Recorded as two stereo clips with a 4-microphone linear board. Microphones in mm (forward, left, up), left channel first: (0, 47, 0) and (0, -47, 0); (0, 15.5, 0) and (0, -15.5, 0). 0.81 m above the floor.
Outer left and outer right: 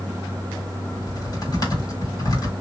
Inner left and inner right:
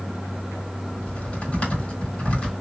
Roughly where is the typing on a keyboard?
Left.